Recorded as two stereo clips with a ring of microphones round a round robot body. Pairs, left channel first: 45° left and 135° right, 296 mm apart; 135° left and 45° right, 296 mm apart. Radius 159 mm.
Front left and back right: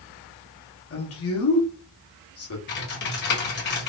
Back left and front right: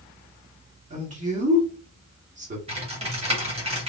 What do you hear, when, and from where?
0.9 s a man speaking: 15° left, 1.7 m
2.7 s typing on a keyboard: 15° left, 1.5 m